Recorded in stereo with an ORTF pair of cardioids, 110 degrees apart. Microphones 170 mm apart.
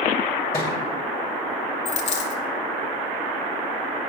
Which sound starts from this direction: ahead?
A thud, at 0.5 s.